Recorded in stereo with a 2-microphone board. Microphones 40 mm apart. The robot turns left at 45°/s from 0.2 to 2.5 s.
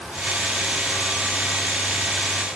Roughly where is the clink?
I don't hear a clink.